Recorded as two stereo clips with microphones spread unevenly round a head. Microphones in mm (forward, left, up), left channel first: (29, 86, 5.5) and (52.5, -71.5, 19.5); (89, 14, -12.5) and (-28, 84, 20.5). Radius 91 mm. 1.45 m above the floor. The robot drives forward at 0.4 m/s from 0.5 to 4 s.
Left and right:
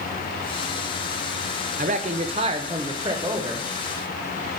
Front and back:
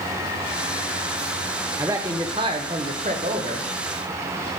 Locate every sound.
1.8 s a man speaking: 130° right, 0.7 m; by 3.7 s 155° right, 1.3 m